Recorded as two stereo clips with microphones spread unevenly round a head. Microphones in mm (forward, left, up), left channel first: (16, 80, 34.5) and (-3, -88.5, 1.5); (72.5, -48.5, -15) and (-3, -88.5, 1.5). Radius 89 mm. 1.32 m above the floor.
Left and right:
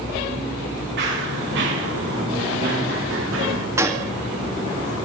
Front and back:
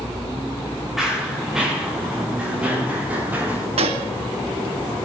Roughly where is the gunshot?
Behind.